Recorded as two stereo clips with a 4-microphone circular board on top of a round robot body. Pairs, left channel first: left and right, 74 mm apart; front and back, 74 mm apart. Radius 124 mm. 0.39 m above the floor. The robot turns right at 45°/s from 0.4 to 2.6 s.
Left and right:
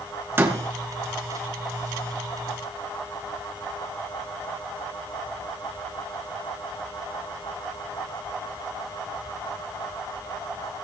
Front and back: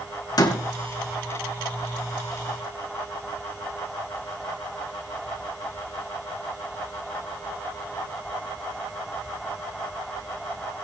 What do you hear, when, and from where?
0.4 s a door slam: 30° right, 3.5 m; by 0.6 s 20° right, 3.5 m